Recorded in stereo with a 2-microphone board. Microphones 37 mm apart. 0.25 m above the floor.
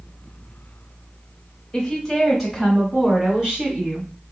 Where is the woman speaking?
20° left (ahead or behind), 1.1 m; by 4.1 s 35° right (ahead or behind), 1.5 m.